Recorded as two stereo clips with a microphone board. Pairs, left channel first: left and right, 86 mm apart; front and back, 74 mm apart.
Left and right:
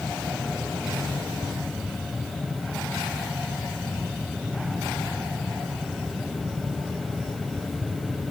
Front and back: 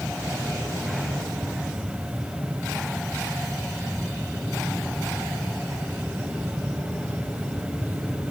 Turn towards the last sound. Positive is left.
No sound to turn to.